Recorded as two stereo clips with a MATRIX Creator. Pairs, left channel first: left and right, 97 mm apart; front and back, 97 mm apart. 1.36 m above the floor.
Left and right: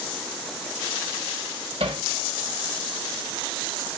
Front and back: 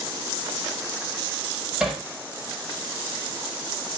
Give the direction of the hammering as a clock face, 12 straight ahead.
3 o'clock.